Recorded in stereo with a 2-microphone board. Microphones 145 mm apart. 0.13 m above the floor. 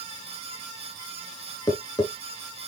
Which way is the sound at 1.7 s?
30° left (ahead or behind).